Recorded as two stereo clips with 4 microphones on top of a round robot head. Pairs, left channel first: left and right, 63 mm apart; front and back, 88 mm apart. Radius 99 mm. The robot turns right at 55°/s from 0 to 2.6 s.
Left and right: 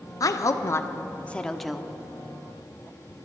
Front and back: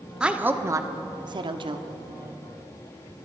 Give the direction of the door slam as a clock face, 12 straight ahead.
No door slam in this recording.